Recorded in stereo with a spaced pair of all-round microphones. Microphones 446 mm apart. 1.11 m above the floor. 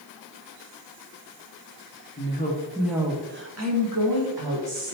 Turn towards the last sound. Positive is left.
turn(degrees=-70)  # may be behind; listen again after turning